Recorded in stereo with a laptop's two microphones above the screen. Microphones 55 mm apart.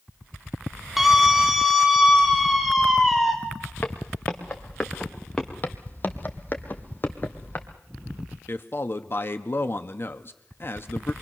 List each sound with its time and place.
1.0 s a scream: 5° right (ahead or behind), 1.4 m; by 3.3 s centre (ahead or behind), 3 m
3.8 s footsteps: 30° left (ahead or behind), 3.5 m; by 5.5 s 15° left (ahead or behind), 4.5 m
5.6 s footsteps: 35° left (ahead or behind), 1.8 m
8.5 s a man speaking: 45° left (ahead or behind), 1.4 m